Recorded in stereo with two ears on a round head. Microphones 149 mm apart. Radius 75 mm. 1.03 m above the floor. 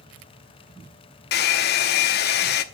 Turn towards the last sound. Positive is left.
turn(degrees=60)  # may be behind; listen again after turning